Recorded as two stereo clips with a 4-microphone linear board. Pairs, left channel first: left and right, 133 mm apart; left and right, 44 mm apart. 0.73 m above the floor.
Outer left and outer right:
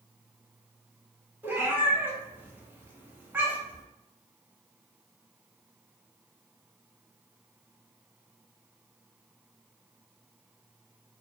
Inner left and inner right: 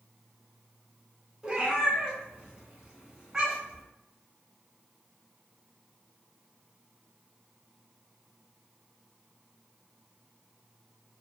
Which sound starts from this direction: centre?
A cat meowing, at 1.4 s.